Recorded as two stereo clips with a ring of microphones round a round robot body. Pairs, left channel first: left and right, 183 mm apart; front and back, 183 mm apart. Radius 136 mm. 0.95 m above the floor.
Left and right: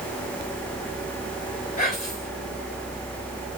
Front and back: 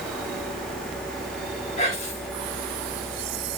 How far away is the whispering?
About 4 m.